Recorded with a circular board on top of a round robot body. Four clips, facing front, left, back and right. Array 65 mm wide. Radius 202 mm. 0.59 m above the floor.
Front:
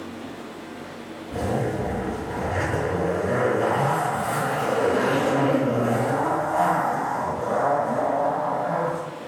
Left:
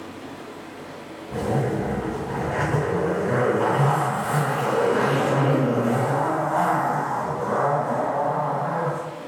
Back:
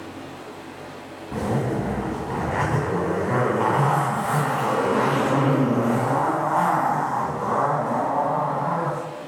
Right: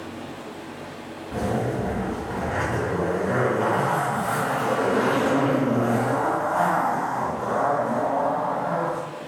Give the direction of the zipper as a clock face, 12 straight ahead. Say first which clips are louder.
Left 1 dB, back 1 dB; 6 o'clock.